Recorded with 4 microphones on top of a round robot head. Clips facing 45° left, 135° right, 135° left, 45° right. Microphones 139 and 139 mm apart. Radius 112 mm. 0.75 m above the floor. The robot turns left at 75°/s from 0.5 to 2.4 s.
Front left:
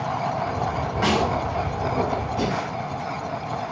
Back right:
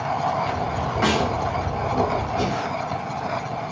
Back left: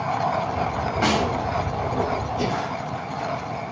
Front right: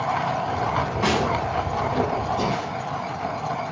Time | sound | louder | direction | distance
1.0 | a snare drum | even, back left 1 dB | 140° left | 6 m
2.4 | breathing | back right 1 dB, even | 15° left | 4.5 m